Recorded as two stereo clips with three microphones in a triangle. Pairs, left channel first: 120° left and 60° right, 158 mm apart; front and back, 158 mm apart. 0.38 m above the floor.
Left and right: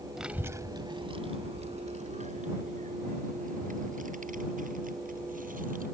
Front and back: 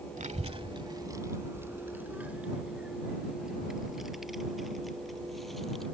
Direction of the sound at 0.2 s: 150° right.